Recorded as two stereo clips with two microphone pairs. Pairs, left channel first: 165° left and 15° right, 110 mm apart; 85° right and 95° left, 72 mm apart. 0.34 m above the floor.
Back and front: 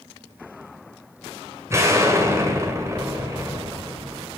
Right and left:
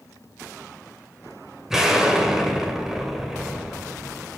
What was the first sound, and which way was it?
An explosion, 20° left.